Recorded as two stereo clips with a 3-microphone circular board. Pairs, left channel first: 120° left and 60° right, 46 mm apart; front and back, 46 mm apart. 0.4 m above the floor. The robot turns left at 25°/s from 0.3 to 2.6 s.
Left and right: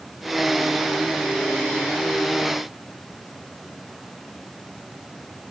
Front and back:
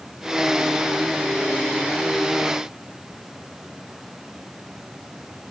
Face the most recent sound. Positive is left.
No sound to turn to.